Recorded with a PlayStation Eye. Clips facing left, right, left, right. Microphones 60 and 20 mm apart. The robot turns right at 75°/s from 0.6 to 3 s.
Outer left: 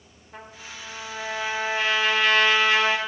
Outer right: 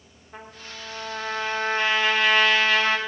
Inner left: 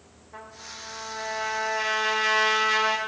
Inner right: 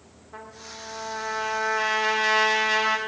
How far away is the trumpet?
About 1.1 m.